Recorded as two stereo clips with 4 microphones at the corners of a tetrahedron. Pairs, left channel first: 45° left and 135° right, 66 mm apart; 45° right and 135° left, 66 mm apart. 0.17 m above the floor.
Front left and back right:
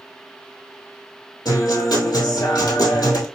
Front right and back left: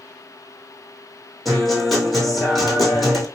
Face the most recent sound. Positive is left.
turn(degrees=45)